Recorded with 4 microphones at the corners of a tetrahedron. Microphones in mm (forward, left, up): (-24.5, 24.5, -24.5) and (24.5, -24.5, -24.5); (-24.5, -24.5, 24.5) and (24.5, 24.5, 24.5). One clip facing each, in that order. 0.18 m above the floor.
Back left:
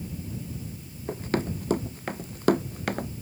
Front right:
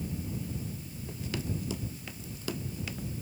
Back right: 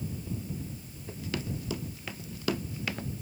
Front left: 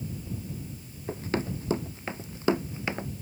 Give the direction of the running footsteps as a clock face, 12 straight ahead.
9 o'clock.